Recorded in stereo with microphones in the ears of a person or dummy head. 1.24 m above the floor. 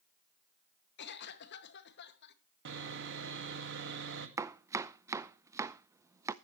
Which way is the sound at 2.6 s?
65° right (ahead or behind).